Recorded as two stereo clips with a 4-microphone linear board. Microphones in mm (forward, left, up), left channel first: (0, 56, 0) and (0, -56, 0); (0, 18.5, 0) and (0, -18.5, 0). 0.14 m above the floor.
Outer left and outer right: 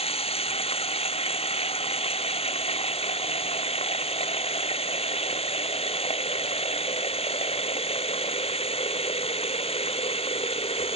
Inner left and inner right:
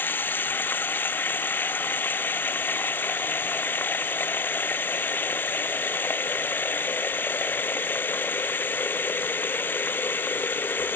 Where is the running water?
55° left (ahead or behind).